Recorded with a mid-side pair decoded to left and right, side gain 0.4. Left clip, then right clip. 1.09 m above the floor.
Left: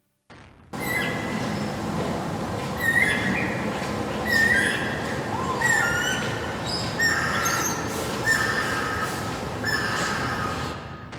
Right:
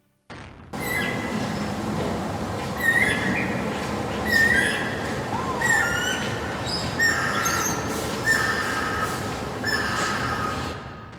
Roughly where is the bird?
Ahead.